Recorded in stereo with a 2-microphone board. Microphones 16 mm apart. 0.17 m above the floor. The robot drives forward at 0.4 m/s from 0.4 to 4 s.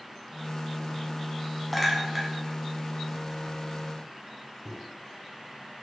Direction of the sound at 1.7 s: 5° right (ahead or behind).